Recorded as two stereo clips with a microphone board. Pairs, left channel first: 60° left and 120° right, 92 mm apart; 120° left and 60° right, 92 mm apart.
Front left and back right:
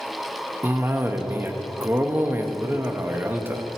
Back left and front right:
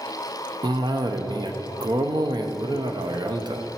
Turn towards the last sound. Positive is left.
turn(degrees=-60)